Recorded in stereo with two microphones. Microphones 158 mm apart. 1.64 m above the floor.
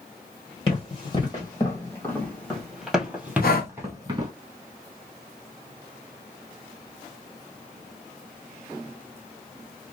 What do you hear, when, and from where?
0.7 s running footsteps: 35° left (ahead or behind), 2 m; by 4.3 s 25° right (ahead or behind), 1.9 m
3.4 s breathing: 70° left (ahead or behind), 0.7 m